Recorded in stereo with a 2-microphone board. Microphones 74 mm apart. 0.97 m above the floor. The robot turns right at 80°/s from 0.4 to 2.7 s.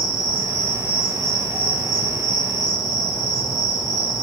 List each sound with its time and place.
0.0 s an insect: 65° right, 1.4 m; by 4.2 s 120° left, 1.4 m